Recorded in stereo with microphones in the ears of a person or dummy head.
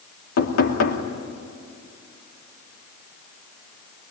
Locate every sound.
0.4 s knocking: 70° left (ahead or behind), 2.5 m